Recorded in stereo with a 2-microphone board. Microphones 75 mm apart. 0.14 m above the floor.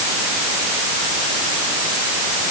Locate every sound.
Only background noise.